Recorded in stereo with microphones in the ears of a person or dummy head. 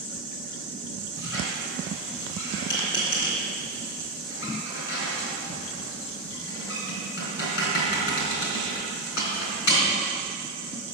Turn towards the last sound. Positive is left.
turn(degrees=70)  # may be behind; listen again after turning